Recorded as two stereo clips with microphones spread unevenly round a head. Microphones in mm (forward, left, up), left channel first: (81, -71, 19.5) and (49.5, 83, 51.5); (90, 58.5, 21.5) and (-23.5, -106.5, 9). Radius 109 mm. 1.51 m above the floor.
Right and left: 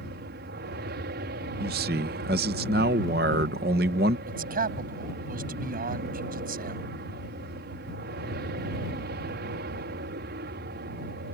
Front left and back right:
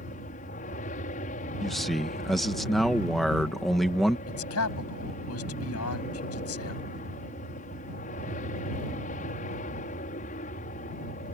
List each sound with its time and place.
0.0 s an aircraft: 110° left
1.6 s a man speaking: 145° left
4.3 s a man speaking: 80° left